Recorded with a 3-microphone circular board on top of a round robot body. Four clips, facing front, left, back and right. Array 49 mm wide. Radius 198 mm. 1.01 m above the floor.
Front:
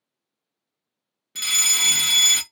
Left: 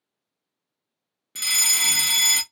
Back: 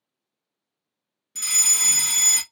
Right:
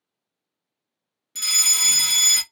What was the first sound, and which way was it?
A fire alarm, 20° left.